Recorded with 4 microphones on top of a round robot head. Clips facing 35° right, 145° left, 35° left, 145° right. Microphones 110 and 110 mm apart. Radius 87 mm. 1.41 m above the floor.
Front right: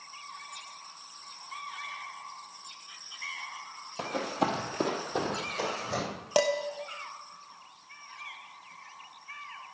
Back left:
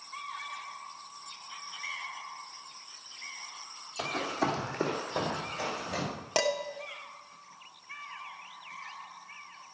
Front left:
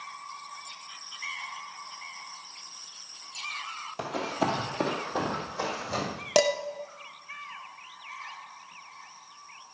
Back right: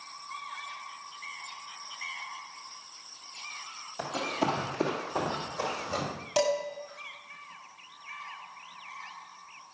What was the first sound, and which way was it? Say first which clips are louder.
Running footsteps: front right 1 dB, front left 1 dB; 5° left.